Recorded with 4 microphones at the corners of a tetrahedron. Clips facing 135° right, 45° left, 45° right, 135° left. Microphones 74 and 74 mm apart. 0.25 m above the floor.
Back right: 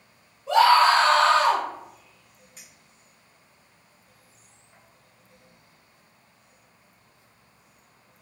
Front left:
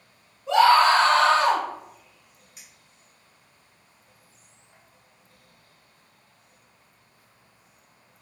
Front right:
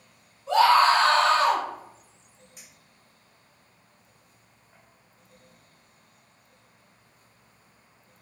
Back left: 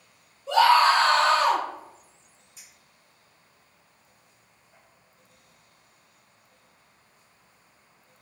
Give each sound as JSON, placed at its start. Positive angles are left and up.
{"t": 0.5, "sound": "a scream", "azimuth_deg": -15, "distance_m": 2.0}
{"t": 2.6, "sound": "a clink", "azimuth_deg": -40, "distance_m": 1.8}